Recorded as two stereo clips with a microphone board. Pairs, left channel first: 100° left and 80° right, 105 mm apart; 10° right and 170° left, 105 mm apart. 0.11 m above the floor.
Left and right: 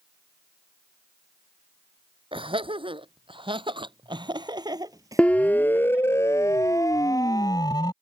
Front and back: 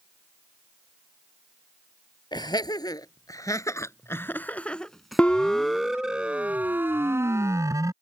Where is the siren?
45° left; by 7.9 s 125° left.